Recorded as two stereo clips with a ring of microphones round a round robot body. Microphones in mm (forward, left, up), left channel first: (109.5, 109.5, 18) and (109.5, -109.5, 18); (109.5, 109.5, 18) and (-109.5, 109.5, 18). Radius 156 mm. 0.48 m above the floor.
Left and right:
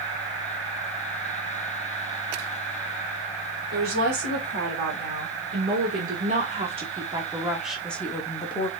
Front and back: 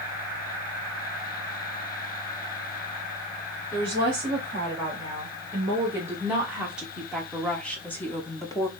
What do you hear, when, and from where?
3.7 s a woman speaking: 110° right, 2.5 m; by 8.7 s 55° left, 1.3 m